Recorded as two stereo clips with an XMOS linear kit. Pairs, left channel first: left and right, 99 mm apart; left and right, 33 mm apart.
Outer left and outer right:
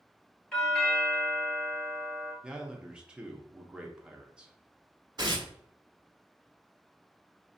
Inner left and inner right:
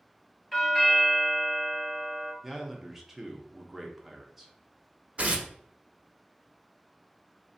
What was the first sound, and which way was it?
A doorbell, 10° left (ahead or behind).